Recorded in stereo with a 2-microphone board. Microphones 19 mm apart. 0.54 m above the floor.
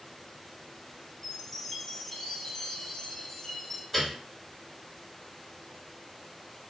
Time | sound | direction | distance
1.2 | a chime | 25° left (ahead or behind) | 0.9 m
3.9 | a piano | 5° left (ahead or behind) | 1.7 m